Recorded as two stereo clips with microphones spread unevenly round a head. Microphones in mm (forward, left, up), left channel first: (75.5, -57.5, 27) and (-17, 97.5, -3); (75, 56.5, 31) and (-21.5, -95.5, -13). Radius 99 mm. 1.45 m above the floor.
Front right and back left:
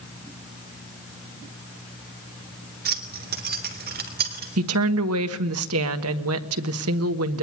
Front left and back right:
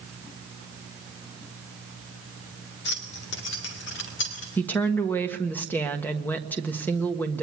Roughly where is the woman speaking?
Behind left.